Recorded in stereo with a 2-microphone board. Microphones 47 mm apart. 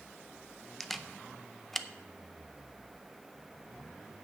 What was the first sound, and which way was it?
A camera shutter, 5° left (ahead or behind).